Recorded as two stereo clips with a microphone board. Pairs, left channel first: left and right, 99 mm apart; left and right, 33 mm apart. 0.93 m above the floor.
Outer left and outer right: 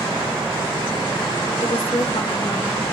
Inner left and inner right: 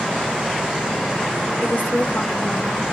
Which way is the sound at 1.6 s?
80° left.